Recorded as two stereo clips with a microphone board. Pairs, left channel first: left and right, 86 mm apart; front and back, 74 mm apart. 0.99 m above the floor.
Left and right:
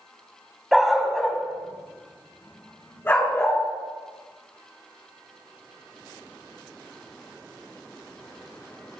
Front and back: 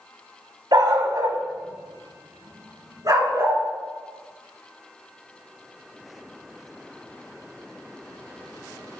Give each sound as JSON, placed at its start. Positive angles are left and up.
{"t": 0.7, "sound": "a dog barking", "azimuth_deg": -175, "distance_m": 1.8}